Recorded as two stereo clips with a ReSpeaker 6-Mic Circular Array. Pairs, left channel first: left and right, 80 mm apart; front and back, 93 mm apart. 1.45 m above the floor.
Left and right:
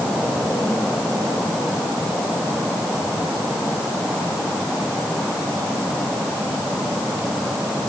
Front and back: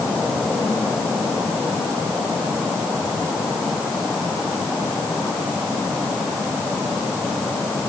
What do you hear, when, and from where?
Only background noise.